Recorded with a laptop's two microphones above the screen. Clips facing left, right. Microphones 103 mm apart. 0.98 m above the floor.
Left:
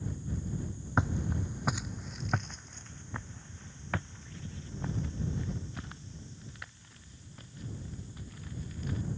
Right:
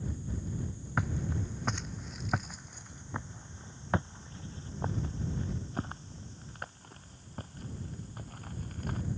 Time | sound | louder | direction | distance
1.0 | footsteps | left 2 dB | 20° left (ahead or behind) | ?